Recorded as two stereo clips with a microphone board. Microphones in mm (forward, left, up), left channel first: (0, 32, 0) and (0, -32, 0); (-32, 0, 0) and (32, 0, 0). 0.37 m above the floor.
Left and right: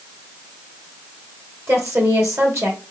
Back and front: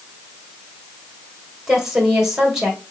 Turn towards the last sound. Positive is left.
turn(degrees=-80)